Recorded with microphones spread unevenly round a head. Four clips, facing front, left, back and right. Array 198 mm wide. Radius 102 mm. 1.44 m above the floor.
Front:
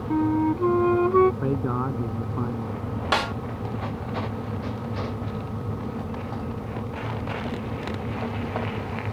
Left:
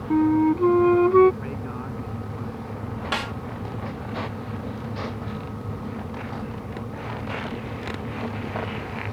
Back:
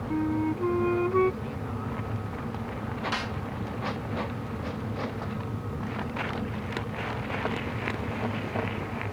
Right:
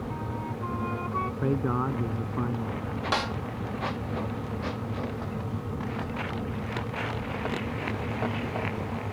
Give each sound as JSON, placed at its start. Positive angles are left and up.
{"t": 0.1, "sound": "a flute", "azimuth_deg": 85}
{"t": 1.4, "sound": "a man speaking", "azimuth_deg": -40}
{"t": 3.1, "sound": "a snare drum", "azimuth_deg": -10}